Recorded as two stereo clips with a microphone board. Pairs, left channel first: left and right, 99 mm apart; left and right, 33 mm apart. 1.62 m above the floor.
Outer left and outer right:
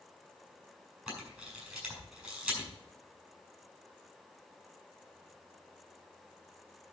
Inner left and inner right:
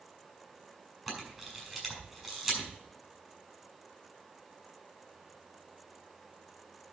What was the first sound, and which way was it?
A camera shutter, 15° right (ahead or behind).